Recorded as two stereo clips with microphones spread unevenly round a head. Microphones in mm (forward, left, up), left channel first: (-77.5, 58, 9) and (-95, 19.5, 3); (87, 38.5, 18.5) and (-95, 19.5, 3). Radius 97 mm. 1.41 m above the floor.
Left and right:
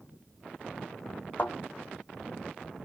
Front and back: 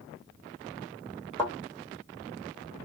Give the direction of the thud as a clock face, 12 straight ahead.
10 o'clock.